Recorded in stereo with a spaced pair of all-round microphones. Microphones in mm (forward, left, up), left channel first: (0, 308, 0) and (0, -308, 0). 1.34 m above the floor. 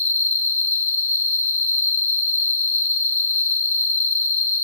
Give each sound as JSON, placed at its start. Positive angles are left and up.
{"t": 0.0, "sound": "an insect", "side_deg": 80, "distance_m": 1.7}